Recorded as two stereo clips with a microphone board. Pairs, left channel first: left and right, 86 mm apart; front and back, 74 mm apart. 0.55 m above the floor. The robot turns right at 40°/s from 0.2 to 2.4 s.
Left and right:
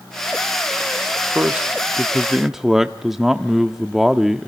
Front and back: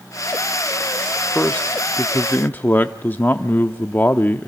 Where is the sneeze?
No sneeze in this recording.